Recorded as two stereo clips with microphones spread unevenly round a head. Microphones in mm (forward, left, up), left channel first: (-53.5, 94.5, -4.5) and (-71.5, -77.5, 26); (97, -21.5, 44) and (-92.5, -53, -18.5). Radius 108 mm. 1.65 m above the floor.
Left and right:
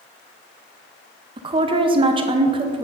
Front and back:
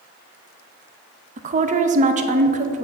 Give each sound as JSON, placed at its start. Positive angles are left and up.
{"t": 1.4, "sound": "a woman speaking", "azimuth_deg": -115, "distance_m": 0.6}